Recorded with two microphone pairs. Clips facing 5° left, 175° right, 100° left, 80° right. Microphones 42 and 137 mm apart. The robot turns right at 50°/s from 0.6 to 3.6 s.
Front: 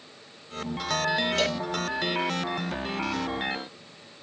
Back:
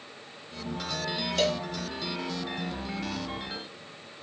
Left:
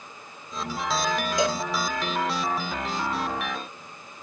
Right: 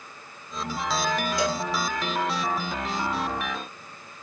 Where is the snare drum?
I don't hear a snare drum.